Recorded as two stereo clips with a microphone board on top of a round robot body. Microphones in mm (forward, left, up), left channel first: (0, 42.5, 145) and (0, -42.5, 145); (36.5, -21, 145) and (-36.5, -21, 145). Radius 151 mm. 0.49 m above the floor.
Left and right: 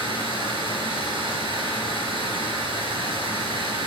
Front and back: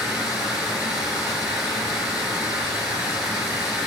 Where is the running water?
95° right, 2.5 m.